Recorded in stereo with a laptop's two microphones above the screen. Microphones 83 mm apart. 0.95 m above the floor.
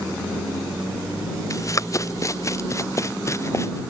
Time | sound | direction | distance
1.5 | running footsteps | 40° left (ahead or behind) | ?